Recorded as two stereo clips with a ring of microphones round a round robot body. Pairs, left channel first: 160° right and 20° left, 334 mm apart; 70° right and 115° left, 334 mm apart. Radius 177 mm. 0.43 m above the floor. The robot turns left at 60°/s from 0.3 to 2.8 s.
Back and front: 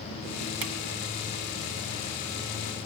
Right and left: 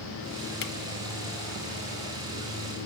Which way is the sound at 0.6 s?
10° right.